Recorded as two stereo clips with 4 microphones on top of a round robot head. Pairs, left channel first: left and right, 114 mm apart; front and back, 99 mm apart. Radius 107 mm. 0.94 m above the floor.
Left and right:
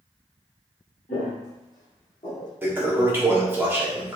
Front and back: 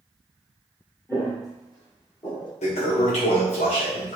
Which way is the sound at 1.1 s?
60° left.